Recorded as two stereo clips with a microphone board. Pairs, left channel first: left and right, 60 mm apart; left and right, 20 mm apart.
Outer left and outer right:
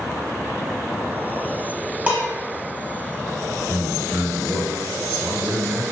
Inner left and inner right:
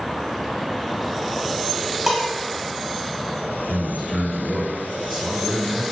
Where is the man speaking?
30° right (ahead or behind), 1.5 m.